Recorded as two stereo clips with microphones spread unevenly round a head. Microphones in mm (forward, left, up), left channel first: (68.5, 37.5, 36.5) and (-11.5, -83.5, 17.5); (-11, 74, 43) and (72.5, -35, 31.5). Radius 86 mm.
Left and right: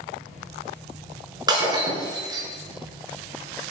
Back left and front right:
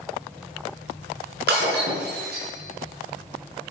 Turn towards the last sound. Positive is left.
turn(degrees=-60)